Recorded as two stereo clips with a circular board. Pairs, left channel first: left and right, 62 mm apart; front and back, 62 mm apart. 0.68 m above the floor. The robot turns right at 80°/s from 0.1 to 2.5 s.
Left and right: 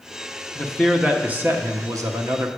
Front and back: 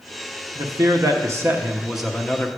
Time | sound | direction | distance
0.6 | a man speaking | 155° left | 1.0 m